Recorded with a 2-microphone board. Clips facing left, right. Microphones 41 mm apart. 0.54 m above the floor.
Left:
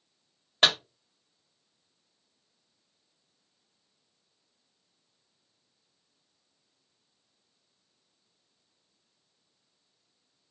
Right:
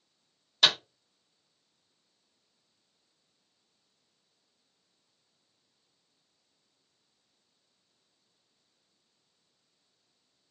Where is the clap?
40° left (ahead or behind), 1.4 m.